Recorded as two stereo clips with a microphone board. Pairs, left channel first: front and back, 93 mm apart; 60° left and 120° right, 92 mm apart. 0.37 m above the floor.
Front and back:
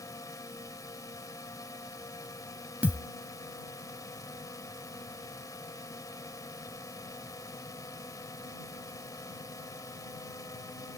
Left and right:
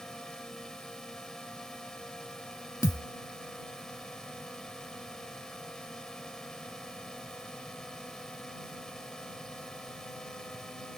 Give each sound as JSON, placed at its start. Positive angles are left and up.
{"t": 0.0, "sound": "a drone", "azimuth_deg": -20}
{"t": 2.8, "sound": "a thud", "azimuth_deg": 110}